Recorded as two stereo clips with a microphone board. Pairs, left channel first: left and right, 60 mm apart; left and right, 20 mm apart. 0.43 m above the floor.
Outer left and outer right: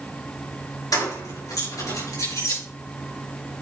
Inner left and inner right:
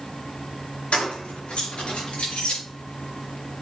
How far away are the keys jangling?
About 4 m.